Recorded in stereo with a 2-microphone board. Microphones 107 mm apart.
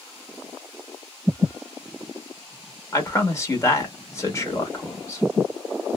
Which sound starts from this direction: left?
A man speaking, at 2.9 s.